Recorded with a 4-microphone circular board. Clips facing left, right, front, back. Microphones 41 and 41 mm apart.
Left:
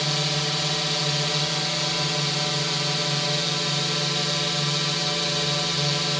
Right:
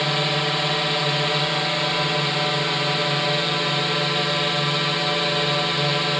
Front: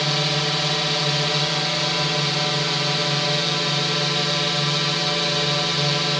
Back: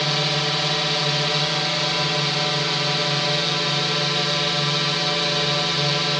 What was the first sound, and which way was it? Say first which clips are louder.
A drone: right 4 dB, even; 100° right.